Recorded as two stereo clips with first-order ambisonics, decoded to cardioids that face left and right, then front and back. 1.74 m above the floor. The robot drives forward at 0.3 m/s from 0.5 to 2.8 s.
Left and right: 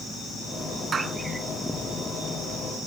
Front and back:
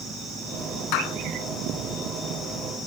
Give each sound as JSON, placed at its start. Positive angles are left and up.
{"t": 0.9, "sound": "a clap", "azimuth_deg": -20}